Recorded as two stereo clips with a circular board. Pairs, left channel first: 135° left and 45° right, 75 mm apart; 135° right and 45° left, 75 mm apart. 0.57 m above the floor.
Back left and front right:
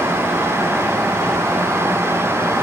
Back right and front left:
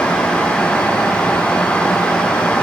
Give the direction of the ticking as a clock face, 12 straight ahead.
I don't hear ticking.